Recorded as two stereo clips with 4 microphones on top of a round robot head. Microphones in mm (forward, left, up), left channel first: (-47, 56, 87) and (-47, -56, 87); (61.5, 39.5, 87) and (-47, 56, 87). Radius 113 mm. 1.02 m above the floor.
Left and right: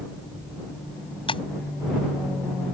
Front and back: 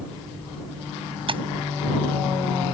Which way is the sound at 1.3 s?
130° left.